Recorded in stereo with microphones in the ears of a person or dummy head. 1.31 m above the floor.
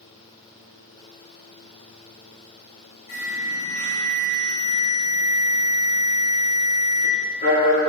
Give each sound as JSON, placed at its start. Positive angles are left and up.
{"t": 3.1, "sound": "an alarm", "side_deg": 45, "distance_m": 3.0}